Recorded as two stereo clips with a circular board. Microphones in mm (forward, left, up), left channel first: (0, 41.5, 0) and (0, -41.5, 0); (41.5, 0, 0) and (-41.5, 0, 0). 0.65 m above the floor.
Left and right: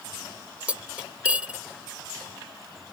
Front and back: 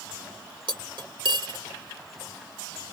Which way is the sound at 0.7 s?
165° right.